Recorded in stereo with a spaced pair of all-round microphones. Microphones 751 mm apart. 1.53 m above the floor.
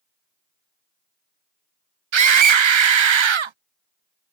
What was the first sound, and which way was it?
A scream, 45° right (ahead or behind).